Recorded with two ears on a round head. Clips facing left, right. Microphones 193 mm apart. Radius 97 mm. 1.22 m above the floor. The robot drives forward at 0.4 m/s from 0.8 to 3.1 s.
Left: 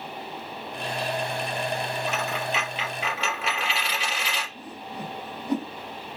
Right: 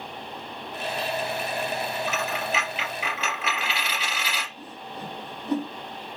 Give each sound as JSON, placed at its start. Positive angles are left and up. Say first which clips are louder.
{"t": 2.1, "sound": "a dropped coin", "louder": "even", "side_deg": 30, "distance_m": 3.5}
{"t": 4.5, "sound": "a whoosh", "louder": "left 2 dB", "side_deg": 15, "distance_m": 3.0}